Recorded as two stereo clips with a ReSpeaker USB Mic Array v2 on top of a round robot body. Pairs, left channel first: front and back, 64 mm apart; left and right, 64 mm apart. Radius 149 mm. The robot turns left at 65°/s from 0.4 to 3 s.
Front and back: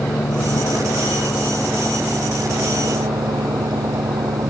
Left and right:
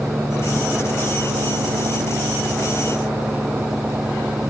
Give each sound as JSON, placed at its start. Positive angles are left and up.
{"t": 0.0, "sound": "an engine running", "azimuth_deg": 0}